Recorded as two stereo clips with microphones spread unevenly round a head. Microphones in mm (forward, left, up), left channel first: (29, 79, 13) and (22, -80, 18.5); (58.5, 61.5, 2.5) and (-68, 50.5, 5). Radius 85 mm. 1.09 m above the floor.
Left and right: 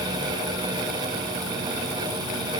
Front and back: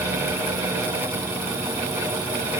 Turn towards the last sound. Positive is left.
No sound to turn to.